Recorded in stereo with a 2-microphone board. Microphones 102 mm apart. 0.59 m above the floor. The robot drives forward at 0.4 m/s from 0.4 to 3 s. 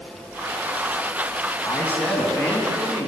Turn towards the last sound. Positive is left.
turn(degrees=15)  # may be behind; listen again after turning